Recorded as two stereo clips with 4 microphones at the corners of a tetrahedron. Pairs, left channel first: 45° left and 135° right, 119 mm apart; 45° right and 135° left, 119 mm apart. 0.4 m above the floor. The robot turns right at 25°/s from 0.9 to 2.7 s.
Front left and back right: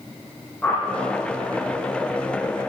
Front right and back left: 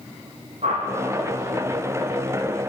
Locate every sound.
0.6 s a whoosh: 120° left, 5 m